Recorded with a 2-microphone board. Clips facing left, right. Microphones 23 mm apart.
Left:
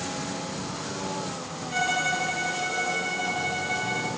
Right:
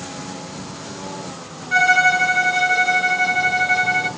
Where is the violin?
55° right (ahead or behind), 4 m.